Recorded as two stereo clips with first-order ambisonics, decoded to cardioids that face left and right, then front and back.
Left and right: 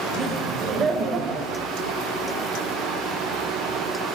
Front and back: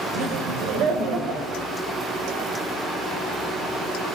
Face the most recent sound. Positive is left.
turn(degrees=-130)